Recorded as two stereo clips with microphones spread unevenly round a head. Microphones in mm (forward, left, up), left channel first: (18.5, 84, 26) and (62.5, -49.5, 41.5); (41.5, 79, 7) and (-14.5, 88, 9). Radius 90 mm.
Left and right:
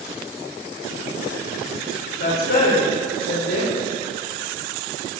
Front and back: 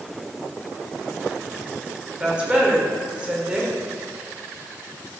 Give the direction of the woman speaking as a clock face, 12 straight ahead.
9 o'clock.